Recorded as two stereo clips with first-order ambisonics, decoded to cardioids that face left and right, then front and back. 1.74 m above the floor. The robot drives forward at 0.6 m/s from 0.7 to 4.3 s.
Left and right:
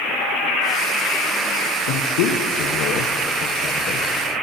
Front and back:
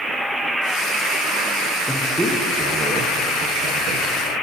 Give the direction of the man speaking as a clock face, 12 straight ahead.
9 o'clock.